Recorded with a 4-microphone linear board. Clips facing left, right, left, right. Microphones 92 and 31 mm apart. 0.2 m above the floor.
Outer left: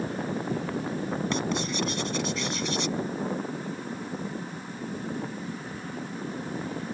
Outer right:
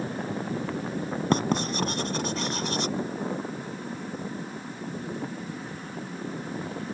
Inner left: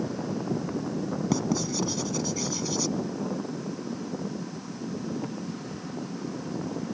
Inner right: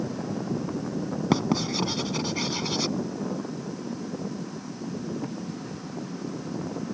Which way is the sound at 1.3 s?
50° right (ahead or behind).